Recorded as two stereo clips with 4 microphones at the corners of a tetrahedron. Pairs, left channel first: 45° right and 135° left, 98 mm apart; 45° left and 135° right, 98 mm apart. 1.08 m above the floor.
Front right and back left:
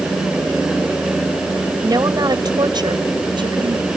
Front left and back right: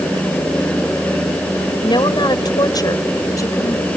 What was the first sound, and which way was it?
A woman speaking, 85° left.